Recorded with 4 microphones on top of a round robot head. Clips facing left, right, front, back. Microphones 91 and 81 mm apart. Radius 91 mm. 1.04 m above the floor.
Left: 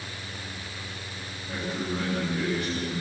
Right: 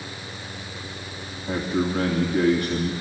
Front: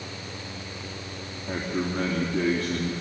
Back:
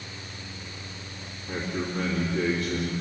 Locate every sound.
1.5 s a man speaking: 60° right, 3 m